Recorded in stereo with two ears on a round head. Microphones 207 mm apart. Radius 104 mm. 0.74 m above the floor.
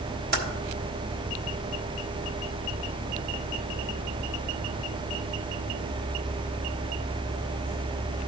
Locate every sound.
0.3 s typing on a keyboard: 40° right (ahead or behind), 1.7 m